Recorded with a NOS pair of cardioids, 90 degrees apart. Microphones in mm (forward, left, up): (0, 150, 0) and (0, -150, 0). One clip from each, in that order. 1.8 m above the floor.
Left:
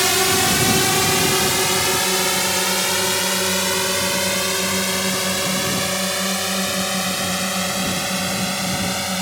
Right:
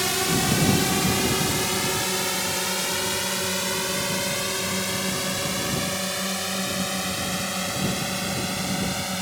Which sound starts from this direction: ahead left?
A drone, at 0.0 s.